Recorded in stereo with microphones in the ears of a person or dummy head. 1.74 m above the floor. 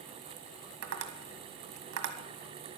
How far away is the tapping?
About 1.6 m.